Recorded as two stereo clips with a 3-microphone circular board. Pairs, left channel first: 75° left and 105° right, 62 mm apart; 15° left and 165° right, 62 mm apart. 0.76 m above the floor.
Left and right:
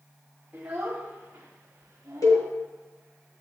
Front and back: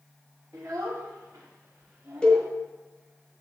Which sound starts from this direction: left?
A cowbell, at 2.2 s.